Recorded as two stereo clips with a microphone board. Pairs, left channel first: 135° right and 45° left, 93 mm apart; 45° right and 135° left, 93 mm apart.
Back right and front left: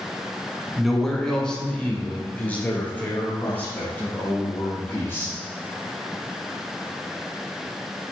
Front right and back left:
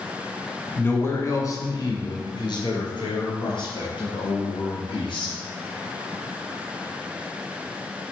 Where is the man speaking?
40° right, 1.1 m; by 5.3 s 65° right, 4 m.